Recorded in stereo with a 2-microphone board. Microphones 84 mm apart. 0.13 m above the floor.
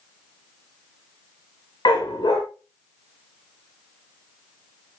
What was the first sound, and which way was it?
A dog barking, 60° left (ahead or behind).